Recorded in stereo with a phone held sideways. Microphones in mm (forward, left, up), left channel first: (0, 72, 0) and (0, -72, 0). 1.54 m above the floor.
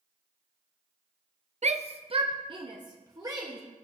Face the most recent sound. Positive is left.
turn(degrees=-25)  # may be behind; listen again after turning